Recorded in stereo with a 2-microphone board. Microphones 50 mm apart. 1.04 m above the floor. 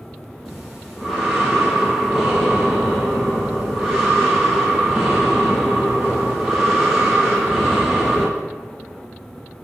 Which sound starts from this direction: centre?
Breathing, at 0.5 s.